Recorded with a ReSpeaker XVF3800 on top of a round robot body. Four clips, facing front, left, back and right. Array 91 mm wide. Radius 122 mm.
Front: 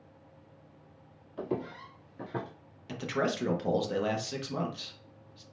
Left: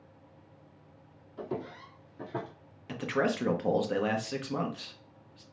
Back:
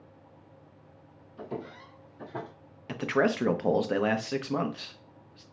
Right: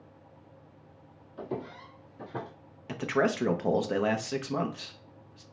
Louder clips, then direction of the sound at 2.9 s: Right 2 dB, back 5 dB; 155° right.